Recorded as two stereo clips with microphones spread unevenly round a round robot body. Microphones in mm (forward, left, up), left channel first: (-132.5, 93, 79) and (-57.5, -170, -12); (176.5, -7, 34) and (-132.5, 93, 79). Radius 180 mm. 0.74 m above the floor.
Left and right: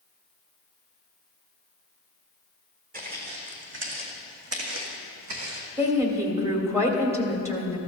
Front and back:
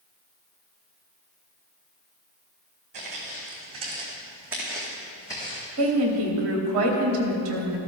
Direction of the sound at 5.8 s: 145° right.